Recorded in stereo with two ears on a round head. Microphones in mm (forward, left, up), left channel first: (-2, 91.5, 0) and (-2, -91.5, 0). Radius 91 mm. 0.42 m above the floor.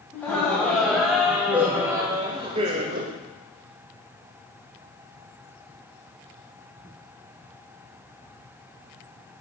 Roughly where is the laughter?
Centre.